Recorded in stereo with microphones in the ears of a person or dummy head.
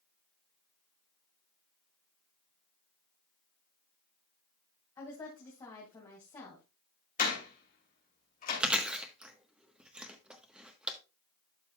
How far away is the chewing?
About 1.1 m.